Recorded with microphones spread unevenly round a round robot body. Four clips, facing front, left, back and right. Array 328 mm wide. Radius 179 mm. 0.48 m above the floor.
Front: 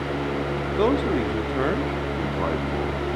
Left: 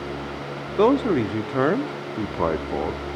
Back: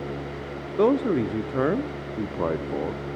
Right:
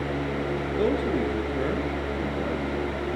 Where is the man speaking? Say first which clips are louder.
Left 8 dB, back 2 dB; 90° left, 0.9 m.